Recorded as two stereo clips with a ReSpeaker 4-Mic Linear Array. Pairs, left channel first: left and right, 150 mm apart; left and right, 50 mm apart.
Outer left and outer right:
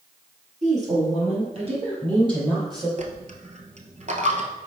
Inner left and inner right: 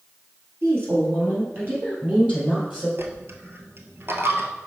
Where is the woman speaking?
55° right (ahead or behind), 3 m; by 2.9 s 25° right (ahead or behind), 4 m.